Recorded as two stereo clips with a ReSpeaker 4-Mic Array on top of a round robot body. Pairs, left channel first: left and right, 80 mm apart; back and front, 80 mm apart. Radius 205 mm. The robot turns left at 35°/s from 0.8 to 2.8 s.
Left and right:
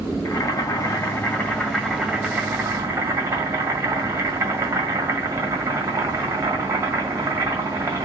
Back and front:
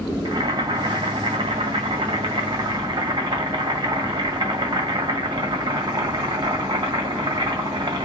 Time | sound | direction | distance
0.2 | boiling | 40° left | 1.6 m